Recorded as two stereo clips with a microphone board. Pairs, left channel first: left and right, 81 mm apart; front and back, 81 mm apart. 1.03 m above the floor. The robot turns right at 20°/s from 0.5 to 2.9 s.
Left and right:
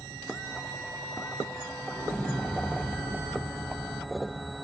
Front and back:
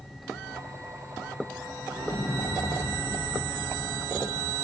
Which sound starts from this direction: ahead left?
An explosion, at 1.9 s.